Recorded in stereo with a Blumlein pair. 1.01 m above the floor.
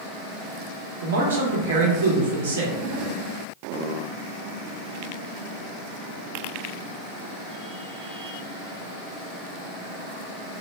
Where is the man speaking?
65° right, 0.9 m.